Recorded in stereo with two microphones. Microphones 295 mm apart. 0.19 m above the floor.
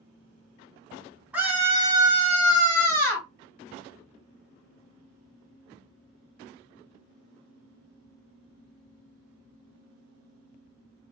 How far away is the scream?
About 1.4 m.